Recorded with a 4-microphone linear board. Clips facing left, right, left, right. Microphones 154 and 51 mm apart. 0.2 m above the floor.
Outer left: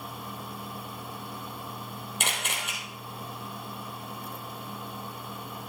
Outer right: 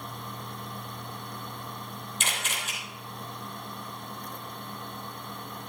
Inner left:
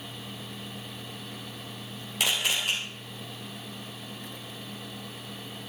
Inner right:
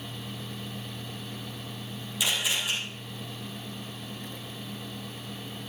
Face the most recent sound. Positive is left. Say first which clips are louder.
# outer left 2 dB, inner left 1 dB
turn(degrees=60)  # may be behind; listen again after turning